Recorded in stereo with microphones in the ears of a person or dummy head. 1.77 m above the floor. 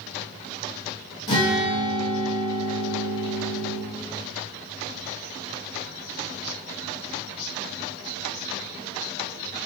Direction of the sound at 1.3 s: 20° left (ahead or behind).